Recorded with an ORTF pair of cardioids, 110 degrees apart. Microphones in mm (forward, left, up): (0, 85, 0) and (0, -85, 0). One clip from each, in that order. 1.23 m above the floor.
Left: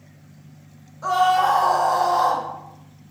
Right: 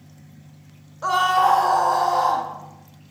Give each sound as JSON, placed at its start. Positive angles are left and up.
{"t": 1.0, "sound": "a scream", "azimuth_deg": -20, "distance_m": 0.7}